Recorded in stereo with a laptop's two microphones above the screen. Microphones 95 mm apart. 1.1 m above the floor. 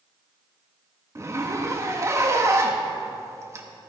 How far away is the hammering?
I don't hear hammering.